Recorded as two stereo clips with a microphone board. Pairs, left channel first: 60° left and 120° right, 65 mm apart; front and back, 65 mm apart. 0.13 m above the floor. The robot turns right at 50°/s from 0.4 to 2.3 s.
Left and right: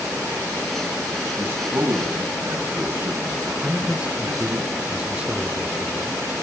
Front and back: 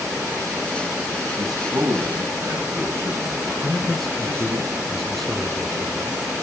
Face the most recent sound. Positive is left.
turn(degrees=-85)